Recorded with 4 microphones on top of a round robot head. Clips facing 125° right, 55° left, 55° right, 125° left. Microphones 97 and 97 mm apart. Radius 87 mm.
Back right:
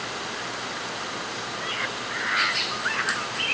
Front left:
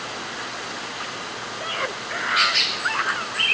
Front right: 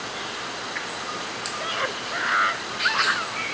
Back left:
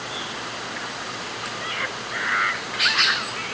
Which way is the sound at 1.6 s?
5° left.